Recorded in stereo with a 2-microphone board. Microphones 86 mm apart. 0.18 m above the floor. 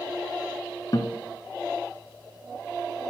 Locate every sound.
0.9 s a guitar: 50° left (ahead or behind), 1.7 m